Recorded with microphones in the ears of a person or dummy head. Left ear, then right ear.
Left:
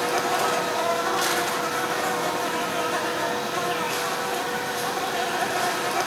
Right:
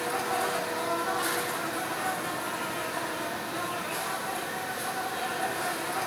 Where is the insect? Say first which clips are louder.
Left 6 dB; 80° left, 2 m.